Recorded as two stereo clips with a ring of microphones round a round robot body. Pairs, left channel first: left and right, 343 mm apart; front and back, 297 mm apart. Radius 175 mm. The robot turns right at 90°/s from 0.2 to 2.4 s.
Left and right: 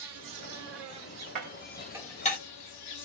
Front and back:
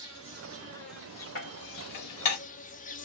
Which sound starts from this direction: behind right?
An insect, at 0.0 s.